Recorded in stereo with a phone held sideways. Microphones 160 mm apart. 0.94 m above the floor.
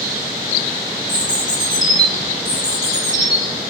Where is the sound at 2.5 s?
25° right (ahead or behind), 3 m.